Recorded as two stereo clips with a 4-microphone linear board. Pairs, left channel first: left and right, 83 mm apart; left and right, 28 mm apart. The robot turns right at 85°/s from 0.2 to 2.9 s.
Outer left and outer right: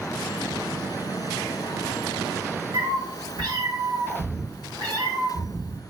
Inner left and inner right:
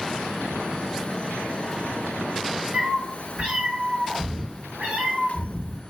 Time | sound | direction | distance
2.7 | a cat meowing | 80° right | 1.3 m